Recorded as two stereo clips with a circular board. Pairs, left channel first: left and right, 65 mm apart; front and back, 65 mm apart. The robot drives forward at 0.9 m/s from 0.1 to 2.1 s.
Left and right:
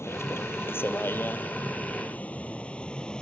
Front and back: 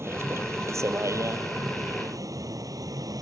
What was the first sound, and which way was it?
A vehicle, 135° left.